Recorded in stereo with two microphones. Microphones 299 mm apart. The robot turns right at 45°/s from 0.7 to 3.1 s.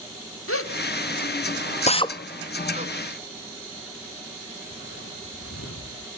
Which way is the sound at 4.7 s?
35° left (ahead or behind).